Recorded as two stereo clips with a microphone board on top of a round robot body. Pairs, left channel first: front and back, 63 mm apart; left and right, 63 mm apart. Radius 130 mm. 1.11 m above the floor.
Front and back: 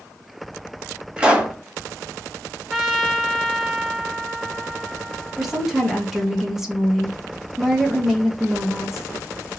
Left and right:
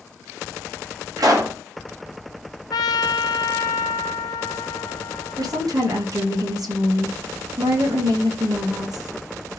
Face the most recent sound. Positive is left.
turn(degrees=-95)